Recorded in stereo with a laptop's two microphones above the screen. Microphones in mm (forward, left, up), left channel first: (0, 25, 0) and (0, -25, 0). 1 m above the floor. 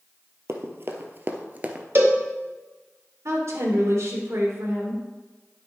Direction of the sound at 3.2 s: 60° right (ahead or behind).